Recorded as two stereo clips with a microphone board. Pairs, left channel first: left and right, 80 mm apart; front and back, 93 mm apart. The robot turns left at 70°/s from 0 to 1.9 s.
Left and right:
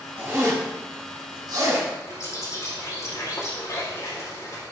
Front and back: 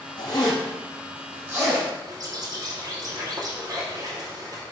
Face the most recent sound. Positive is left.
turn(degrees=135)